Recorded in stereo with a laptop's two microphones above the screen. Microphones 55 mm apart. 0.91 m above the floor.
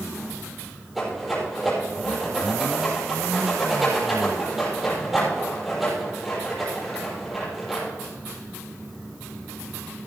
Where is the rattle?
Centre (ahead or behind), 6.5 m.